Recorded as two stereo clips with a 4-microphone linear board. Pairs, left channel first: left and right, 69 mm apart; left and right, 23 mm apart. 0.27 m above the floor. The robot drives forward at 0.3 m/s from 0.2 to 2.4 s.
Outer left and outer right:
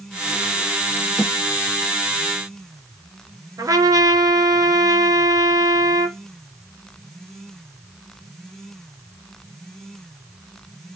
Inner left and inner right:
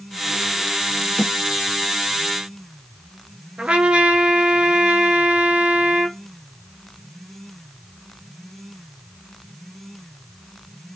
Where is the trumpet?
60° right (ahead or behind), 0.6 m.